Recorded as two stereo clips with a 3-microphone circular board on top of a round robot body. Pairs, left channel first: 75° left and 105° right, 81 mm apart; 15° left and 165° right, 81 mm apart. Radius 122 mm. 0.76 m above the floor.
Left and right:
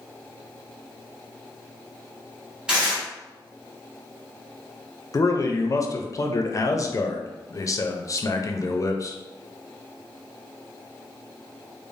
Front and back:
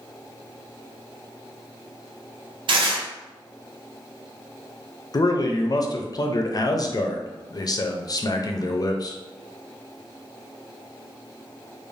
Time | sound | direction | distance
2.7 | tearing paper | 175° left | 0.7 m
5.1 | a man speaking | 40° left | 0.5 m